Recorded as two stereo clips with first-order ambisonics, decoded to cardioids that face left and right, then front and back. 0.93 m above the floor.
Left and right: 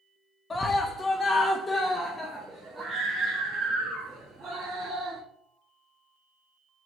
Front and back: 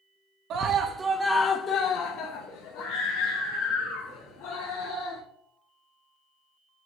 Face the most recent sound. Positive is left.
turn(degrees=0)